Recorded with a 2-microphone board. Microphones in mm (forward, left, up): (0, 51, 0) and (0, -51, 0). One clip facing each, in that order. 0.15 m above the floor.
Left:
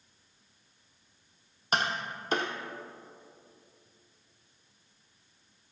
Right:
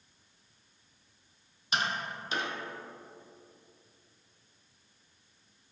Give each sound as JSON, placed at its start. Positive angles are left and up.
{"t": 1.7, "sound": "tapping", "side_deg": 45, "distance_m": 0.9}